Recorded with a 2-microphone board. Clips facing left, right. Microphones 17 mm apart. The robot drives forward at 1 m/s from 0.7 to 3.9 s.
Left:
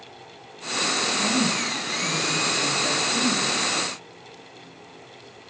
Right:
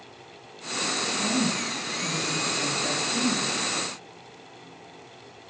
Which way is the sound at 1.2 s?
15° left (ahead or behind).